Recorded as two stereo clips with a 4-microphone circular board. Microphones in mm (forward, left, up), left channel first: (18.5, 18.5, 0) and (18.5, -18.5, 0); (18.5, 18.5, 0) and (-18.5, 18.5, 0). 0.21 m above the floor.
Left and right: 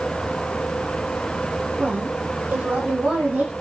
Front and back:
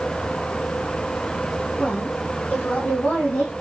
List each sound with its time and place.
1.8 s a woman speaking: 50° right, 8 m; by 3.5 s 35° right, 7.5 m